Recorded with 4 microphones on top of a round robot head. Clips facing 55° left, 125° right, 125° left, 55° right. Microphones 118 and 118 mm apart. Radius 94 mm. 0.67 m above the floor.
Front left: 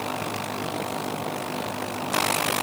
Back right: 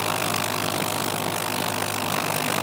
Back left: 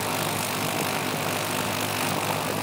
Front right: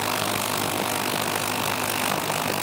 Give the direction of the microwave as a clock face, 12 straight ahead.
I don't hear a microwave.